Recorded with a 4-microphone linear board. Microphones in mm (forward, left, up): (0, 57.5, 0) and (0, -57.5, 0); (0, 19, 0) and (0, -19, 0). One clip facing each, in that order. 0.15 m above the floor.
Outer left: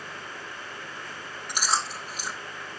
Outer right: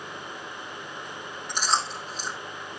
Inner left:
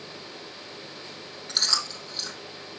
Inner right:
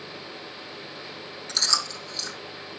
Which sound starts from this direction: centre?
Chewing, at 1.5 s.